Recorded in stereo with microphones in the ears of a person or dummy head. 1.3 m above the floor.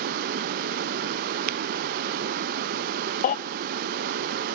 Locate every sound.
0.0 s running water: 55° right (ahead or behind), 0.7 m
1.5 s tapping: 45° right (ahead or behind), 0.9 m
3.2 s a baby crying: 30° left (ahead or behind), 0.6 m